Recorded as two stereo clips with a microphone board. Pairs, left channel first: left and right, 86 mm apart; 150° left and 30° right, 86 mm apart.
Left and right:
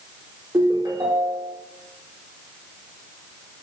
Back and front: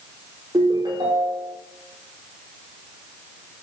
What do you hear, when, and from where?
0.5 s a ringtone: 55° right, 3.5 m